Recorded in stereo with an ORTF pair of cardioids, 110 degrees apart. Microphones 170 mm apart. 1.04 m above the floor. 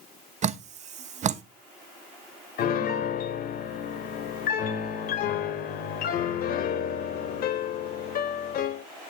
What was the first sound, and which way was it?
Dripping, 45° right.